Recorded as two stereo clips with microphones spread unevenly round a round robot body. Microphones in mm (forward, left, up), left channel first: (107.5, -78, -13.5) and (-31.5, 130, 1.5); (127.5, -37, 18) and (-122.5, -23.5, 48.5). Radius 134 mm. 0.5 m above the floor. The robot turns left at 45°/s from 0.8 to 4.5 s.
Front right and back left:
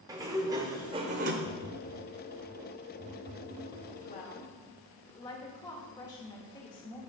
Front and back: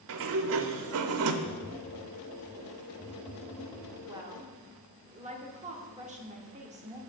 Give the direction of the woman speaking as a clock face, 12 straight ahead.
3 o'clock.